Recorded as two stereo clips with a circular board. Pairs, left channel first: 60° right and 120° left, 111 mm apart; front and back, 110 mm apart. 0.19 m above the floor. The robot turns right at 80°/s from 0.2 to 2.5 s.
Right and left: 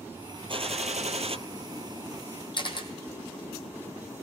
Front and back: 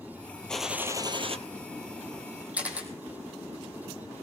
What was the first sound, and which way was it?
A gunshot, 80° left.